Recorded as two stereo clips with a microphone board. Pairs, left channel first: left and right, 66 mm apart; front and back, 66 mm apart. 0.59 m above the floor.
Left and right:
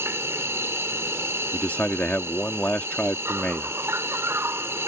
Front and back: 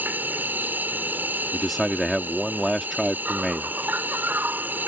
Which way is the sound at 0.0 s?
125° right.